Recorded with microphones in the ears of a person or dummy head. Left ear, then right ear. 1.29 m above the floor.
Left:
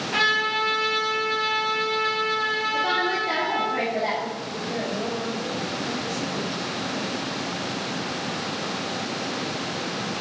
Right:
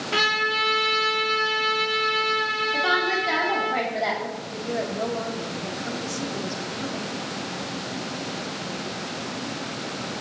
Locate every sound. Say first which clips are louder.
0.1 s a trumpet: even; 50° right (ahead or behind), 6 m
2.7 s a woman speaking: right 1 dB; 85° right, 3 m
4.4 s a woman speaking: even; 80° right, 3 m